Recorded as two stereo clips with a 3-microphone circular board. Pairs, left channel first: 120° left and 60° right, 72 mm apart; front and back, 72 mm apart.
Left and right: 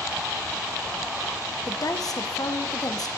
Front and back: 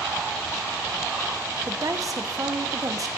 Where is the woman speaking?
145° left, 0.8 m.